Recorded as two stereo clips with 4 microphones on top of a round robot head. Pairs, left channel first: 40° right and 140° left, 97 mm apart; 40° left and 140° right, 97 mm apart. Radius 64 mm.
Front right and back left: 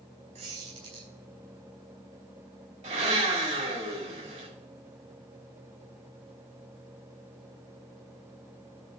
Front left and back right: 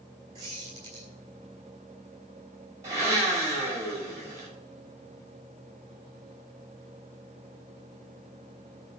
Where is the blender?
160° left, 6.5 m.